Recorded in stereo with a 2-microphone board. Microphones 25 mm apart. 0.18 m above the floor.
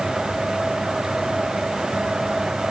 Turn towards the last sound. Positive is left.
No sound to turn to.